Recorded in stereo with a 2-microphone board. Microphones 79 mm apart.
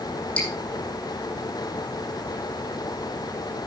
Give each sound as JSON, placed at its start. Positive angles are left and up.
{"t": 0.4, "sound": "dripping", "side_deg": 10, "distance_m": 9.0}